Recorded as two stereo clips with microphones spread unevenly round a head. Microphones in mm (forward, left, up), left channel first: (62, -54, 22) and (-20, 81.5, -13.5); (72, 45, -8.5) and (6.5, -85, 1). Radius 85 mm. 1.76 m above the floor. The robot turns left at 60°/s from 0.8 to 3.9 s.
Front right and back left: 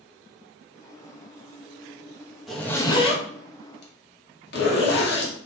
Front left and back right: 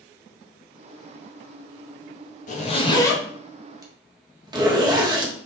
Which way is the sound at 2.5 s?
30° left.